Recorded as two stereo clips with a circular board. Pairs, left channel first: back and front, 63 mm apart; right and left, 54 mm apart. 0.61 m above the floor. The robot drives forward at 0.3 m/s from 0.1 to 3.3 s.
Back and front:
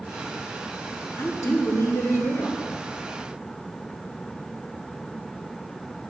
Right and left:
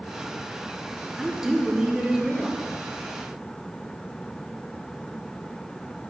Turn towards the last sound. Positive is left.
turn(degrees=170)